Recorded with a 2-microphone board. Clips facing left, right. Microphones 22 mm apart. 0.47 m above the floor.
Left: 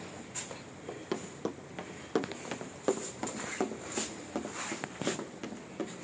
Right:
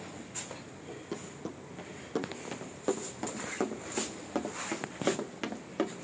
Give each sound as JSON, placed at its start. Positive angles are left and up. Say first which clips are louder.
{"t": 0.9, "sound": "running footsteps", "louder": "left 4 dB", "side_deg": 40, "distance_m": 3.0}